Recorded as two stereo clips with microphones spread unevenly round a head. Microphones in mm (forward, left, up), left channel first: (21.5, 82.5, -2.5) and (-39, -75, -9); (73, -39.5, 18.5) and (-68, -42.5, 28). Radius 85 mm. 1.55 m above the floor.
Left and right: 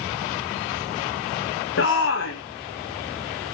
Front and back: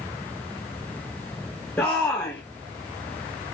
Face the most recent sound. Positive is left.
turn(degrees=80)